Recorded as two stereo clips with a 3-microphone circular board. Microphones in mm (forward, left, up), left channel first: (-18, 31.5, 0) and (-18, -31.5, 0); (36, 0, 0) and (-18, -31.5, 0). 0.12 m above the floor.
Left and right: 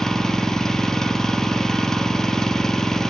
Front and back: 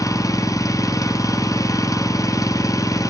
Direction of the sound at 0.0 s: 10° left.